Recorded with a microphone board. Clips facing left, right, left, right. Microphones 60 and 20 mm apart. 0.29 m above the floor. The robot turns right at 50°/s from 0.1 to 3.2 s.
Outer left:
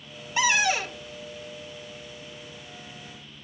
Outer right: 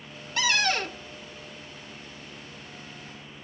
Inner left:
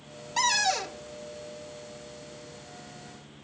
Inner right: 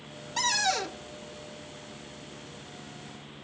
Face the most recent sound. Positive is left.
turn(degrees=-70)